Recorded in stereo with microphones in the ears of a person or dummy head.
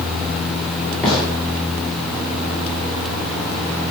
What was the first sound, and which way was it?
A gunshot, centre (ahead or behind).